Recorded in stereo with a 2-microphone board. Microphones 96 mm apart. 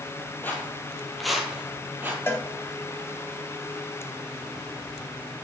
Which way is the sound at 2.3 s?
25° left (ahead or behind).